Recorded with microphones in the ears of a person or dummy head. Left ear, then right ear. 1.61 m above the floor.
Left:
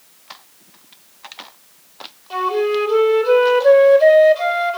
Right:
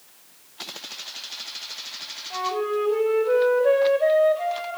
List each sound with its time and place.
2.3 s a flute: 40° left (ahead or behind), 3 m